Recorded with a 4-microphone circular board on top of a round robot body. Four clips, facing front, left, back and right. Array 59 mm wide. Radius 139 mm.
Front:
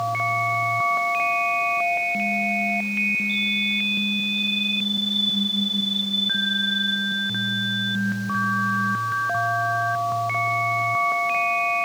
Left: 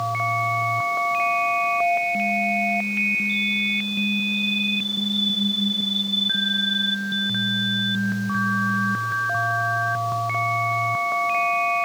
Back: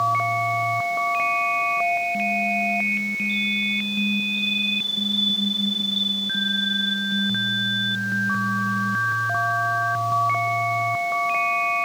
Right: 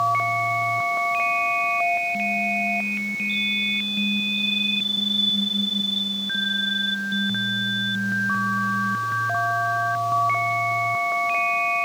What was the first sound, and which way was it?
Only background noise.